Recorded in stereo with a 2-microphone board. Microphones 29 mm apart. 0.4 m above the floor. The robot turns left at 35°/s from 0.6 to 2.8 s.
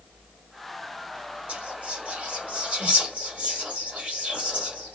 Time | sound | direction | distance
1.5 | whispering | 40° right (ahead or behind) | 1.2 m